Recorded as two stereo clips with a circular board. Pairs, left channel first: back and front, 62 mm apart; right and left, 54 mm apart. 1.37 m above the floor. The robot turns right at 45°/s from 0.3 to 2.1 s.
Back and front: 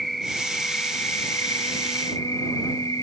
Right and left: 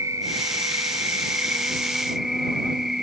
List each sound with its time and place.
0.0 s an insect: 90° left; by 3.0 s 170° left